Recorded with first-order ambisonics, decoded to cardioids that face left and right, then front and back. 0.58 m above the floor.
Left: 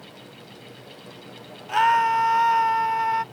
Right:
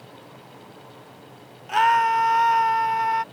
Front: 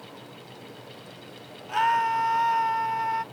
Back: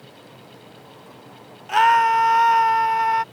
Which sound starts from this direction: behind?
A scream, at 1.7 s.